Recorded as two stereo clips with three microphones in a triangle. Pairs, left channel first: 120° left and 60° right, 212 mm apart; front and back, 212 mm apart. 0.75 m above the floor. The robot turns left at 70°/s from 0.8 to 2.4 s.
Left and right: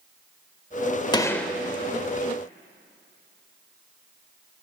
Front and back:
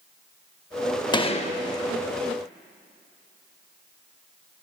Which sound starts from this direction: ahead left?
A gunshot, at 1.1 s.